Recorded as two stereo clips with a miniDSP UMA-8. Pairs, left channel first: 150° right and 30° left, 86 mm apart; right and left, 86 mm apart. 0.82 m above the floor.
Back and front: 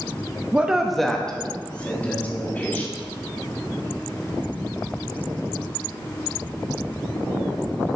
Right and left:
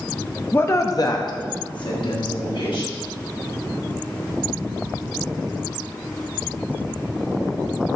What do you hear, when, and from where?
0.5 s a woman speaking: 35° right, 0.6 m; by 2.9 s 85° right, 2 m